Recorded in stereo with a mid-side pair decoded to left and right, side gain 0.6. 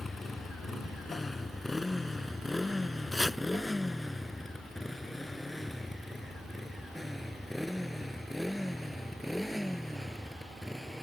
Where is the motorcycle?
20° left; by 11.0 s straight ahead.